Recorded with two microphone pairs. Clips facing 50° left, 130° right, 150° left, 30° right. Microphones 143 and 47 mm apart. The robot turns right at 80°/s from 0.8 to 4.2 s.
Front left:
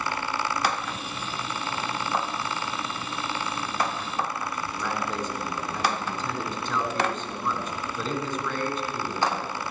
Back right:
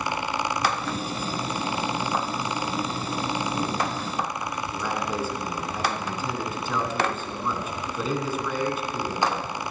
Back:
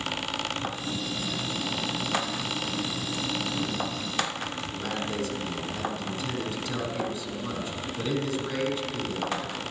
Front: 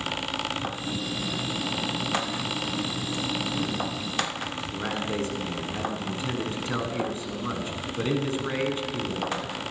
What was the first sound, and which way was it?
A man speaking, 50° right.